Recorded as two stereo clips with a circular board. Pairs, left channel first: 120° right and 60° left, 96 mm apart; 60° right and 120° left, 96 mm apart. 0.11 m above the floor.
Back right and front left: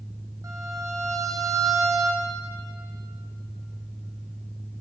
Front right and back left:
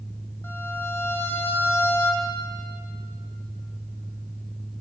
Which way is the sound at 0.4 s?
5° left.